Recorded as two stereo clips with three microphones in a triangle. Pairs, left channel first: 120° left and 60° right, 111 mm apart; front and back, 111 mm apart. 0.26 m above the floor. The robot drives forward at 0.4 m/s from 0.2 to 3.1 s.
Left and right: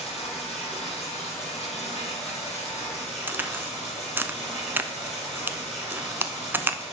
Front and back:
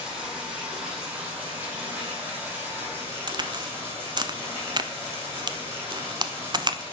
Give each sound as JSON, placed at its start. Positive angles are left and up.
{"t": 0.0, "sound": "running water", "azimuth_deg": 100, "distance_m": 5.0}
{"t": 3.3, "sound": "a crack", "azimuth_deg": -130, "distance_m": 0.5}